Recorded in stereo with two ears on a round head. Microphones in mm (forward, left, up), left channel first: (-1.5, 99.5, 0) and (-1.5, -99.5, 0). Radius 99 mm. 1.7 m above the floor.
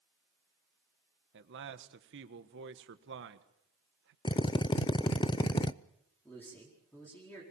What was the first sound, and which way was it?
A man speaking, 55° right (ahead or behind).